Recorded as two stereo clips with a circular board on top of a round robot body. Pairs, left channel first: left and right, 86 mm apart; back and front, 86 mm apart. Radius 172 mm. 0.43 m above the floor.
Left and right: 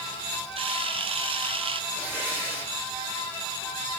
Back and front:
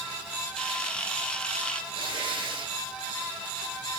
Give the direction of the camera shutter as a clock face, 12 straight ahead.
3 o'clock.